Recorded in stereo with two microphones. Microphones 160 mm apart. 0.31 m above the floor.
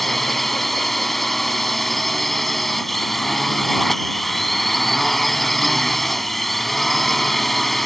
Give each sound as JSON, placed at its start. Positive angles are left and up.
{"t": 0.0, "sound": "a drone", "side_deg": 0}